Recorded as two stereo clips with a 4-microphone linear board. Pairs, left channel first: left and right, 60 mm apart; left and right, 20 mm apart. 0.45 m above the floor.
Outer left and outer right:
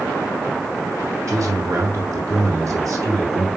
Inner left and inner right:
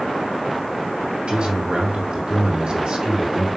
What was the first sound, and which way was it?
A man speaking, 65° right (ahead or behind).